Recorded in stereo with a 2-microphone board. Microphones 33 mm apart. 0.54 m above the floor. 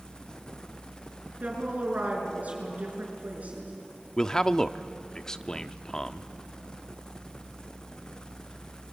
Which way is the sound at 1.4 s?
45° right (ahead or behind).